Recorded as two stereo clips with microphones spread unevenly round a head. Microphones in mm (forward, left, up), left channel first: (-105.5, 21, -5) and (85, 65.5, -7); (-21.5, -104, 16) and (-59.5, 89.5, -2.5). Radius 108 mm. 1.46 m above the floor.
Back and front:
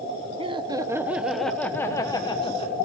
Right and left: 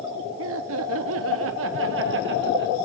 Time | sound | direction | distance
0.4 | laughter | 75° left | 1.2 m